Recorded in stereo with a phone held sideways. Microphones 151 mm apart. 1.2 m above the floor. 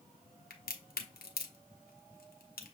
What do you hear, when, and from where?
0.5 s a crack: 80° left, 0.8 m